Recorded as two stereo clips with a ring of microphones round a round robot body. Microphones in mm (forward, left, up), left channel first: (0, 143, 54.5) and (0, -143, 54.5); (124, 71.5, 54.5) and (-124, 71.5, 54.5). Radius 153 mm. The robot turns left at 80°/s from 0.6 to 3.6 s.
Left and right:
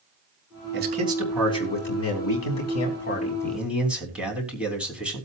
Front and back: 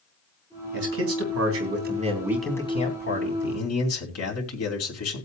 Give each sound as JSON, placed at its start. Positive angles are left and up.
{"t": 0.7, "sound": "a man speaking", "azimuth_deg": -135, "distance_m": 3.5}